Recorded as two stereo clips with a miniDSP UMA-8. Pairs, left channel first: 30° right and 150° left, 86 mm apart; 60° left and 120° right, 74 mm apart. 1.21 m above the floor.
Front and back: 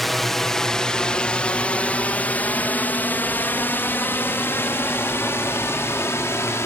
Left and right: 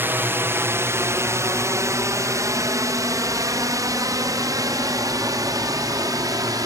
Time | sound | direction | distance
0.0 | a drone | 115° right | ?